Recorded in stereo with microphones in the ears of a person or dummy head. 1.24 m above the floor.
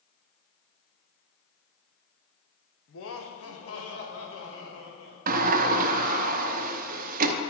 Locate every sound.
2.9 s laughter: 60° left (ahead or behind), 1.0 m; by 5.2 s 65° left (ahead or behind), 2 m
5.3 s a sliding door: 50° right (ahead or behind), 0.7 m